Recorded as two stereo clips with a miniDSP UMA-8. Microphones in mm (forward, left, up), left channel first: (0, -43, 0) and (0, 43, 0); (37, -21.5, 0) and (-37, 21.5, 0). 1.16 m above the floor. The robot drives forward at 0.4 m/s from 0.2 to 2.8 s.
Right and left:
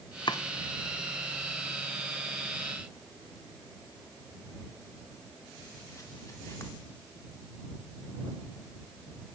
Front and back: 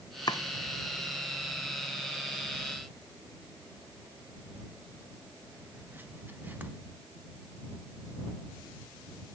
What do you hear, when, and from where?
0.3 s chopping: 65° right, 0.7 m; by 6.7 s 145° right, 1.0 m